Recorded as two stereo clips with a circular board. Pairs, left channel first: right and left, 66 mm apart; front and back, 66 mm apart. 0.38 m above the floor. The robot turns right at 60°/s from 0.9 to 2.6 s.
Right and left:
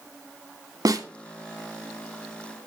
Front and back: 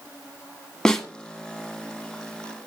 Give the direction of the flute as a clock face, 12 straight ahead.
I don't hear a flute.